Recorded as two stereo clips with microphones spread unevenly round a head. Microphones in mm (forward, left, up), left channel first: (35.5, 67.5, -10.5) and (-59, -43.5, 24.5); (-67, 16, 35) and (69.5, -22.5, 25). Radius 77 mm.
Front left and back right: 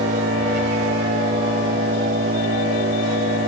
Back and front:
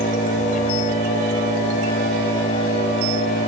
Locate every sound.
0.0 s an engine running: 155° right